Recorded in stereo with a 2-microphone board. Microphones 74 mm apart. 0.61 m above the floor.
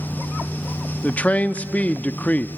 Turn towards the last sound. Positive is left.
turn(degrees=20)  # may be behind; listen again after turning